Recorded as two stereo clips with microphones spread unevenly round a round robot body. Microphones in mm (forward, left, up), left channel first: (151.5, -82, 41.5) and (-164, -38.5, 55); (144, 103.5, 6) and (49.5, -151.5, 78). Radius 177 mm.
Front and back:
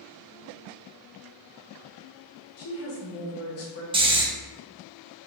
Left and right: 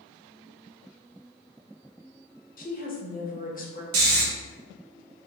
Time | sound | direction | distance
2.6 | a woman speaking | 25° left | 1.3 m
3.9 | snoring | 120° right | 0.9 m